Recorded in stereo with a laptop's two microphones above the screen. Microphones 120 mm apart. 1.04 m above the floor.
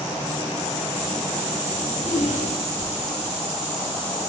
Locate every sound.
1.8 s a zipper: 80° left, 1.8 m